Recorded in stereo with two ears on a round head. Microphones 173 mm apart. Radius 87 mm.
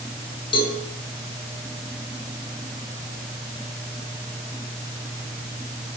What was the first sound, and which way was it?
A cowbell, 25° left (ahead or behind).